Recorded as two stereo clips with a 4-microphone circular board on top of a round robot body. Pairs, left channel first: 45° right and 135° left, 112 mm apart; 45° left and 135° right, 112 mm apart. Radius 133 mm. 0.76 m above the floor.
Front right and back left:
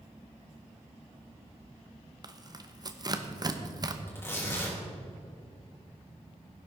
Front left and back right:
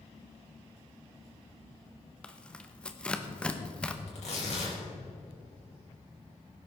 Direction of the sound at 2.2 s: 120° left.